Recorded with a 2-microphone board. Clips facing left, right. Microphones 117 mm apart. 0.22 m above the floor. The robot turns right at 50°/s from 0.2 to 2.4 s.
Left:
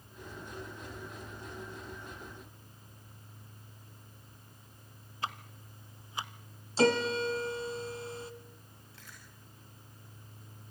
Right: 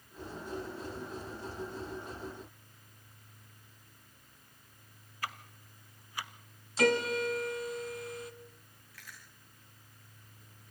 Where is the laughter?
No laughter in this recording.